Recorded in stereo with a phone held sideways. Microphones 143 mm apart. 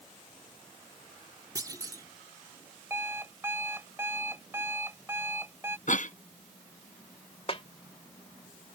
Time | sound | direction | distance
1.6 | a clunk | 25° right (ahead or behind) | ?
2.9 | an alarm clock | 15° right (ahead or behind) | ?
5.9 | a cough | 65° left (ahead or behind) | ?
7.5 | a snare drum | 45° left (ahead or behind) | ?